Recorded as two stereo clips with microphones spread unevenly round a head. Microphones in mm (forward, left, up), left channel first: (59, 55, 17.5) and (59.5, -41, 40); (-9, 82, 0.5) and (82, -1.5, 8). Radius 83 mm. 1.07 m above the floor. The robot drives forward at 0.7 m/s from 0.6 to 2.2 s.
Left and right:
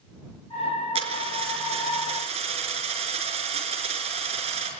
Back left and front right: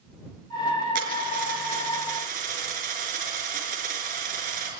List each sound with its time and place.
0.9 s a dropped coin: 75° right, 5 m; by 4.7 s 85° right, 5 m